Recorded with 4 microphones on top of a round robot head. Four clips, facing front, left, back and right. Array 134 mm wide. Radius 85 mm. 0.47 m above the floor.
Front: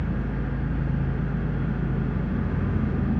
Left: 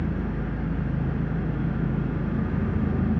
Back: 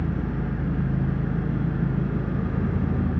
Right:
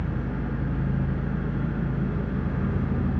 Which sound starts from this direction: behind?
An engine running, at 0.0 s.